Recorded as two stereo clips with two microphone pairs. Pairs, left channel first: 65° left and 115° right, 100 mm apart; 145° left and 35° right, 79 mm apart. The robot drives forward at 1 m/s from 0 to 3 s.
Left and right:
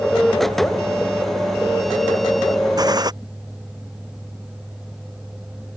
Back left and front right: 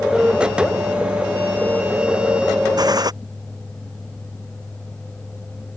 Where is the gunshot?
70° right.